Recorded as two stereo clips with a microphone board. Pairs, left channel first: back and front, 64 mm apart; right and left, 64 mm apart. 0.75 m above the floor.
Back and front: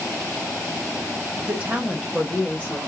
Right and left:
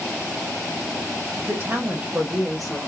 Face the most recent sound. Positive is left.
turn(degrees=-160)